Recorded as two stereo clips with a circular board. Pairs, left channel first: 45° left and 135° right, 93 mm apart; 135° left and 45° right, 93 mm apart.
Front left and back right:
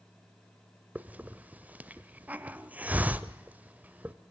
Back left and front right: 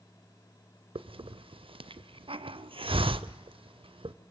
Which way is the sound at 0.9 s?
60° right.